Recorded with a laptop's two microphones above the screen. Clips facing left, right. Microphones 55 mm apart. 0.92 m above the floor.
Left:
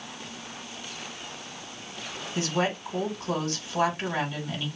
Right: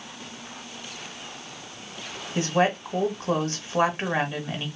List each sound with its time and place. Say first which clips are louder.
2.4 s a woman speaking: right 5 dB; 35° right (ahead or behind), 1.9 m